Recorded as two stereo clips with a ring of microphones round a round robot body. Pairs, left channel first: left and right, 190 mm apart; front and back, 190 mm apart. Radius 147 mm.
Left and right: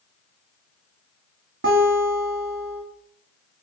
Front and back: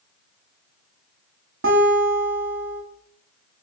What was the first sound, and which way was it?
A guitar, 135° right.